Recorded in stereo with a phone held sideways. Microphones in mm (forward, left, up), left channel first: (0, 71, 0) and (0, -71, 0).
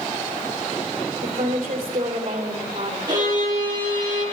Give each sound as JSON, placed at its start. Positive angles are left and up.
{"t": 1.2, "sound": "a woman speaking", "side_deg": -60, "distance_m": 3.0}
{"t": 3.1, "sound": "a violin", "side_deg": -30, "distance_m": 7.0}